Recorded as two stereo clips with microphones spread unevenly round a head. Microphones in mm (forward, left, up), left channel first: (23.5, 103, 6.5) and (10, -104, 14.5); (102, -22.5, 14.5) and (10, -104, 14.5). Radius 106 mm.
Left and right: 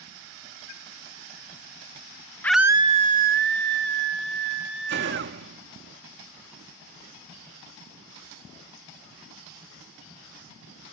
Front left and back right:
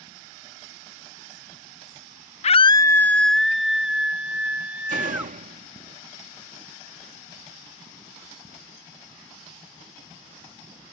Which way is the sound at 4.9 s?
135° right.